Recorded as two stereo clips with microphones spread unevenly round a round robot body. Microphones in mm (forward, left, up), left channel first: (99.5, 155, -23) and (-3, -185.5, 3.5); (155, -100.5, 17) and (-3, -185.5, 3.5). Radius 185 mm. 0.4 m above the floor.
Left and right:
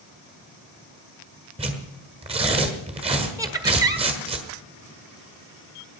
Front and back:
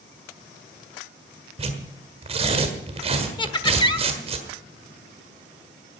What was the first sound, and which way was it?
Tearing paper, straight behind.